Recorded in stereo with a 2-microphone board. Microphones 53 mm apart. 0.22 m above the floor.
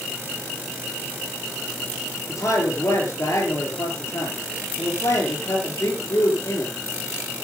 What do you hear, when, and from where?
2.3 s a man speaking: 65° left (ahead or behind), 6 m